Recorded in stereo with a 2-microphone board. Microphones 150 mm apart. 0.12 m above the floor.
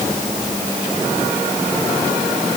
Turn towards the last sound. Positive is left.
No sound to turn to.